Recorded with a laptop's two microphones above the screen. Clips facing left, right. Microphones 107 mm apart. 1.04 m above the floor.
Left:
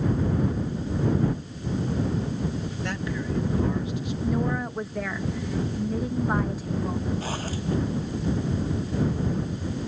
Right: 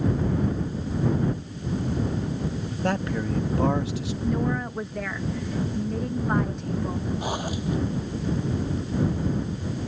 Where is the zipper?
15° right (ahead or behind).